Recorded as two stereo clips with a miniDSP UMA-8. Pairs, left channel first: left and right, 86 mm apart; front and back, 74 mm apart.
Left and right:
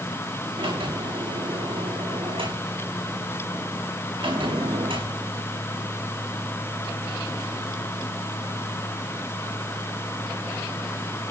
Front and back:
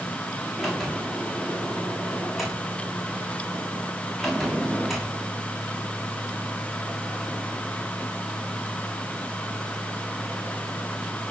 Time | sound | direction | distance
0.6 | a sliding door | 90° right | 8 m